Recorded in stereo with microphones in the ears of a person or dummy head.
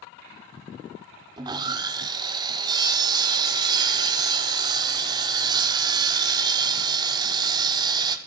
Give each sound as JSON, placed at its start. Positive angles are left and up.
{"t": 1.4, "sound": "sawing", "side_deg": -20, "distance_m": 0.6}